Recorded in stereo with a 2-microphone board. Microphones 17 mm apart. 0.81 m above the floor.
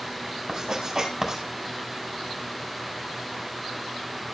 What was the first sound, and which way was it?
Writing, 35° right (ahead or behind).